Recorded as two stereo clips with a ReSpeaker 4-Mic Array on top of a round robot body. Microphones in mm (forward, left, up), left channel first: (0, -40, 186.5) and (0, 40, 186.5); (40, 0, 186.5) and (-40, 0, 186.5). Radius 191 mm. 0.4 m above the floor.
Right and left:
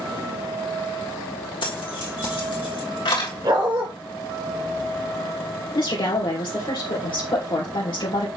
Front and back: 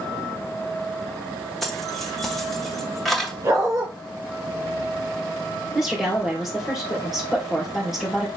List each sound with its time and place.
1.6 s keys jangling: 90° right, 3 m
3.4 s a dog barking: 125° left, 2 m
5.8 s a woman speaking: 95° right, 2.5 m